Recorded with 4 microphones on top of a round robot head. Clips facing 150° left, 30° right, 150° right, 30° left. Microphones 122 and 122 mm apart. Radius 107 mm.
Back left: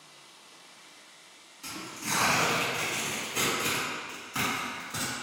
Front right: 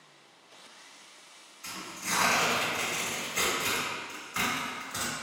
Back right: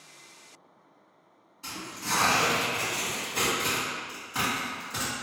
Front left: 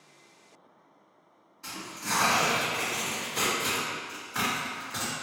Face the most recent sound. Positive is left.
turn(degrees=135)